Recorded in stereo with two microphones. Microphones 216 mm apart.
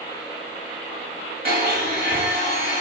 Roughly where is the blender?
Right.